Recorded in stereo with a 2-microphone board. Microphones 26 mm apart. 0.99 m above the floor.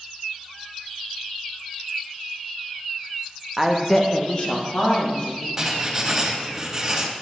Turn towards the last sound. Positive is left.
turn(degrees=-20)  # may be behind; listen again after turning